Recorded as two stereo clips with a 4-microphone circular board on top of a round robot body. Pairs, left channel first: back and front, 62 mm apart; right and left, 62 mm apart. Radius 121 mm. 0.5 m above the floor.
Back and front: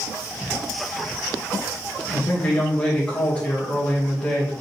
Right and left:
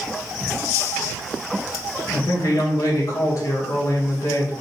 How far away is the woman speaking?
About 3 m.